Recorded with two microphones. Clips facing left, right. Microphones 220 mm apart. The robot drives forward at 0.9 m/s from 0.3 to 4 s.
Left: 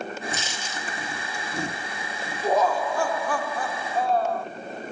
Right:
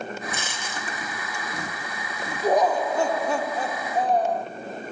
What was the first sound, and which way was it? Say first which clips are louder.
A dropped coin: even; 55° right (ahead or behind).